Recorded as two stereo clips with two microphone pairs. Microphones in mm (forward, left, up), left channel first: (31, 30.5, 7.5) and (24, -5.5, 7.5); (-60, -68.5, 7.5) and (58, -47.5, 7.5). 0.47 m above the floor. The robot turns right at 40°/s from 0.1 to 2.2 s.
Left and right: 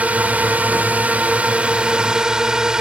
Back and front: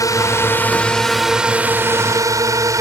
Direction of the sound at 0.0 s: 125° right.